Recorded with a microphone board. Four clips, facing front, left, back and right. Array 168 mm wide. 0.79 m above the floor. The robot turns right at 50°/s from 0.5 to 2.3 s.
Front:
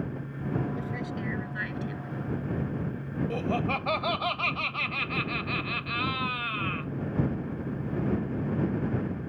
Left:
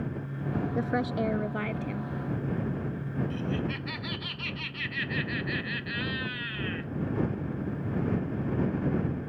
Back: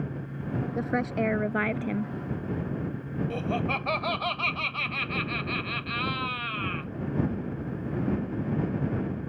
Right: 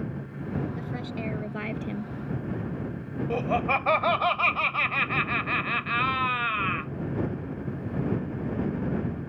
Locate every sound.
0.8 s a woman speaking: 130° left; by 2.1 s 160° right
3.3 s laughter: 90° right